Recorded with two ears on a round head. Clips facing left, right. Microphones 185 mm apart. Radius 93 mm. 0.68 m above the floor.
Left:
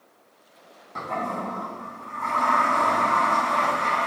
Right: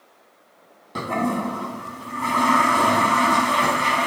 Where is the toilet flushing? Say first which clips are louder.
Right 7 dB; 45° right (ahead or behind), 1.9 m.